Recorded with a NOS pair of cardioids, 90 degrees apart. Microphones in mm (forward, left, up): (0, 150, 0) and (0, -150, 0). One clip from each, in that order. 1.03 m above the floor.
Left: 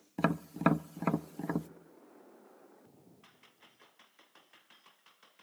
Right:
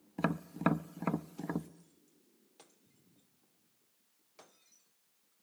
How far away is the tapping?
About 0.5 m.